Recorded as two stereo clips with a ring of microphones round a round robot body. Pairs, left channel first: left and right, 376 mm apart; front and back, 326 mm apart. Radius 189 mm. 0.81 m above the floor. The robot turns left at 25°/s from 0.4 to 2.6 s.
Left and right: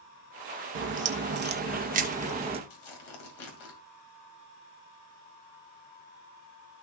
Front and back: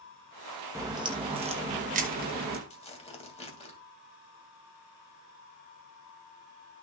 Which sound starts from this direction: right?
A crack, at 0.8 s.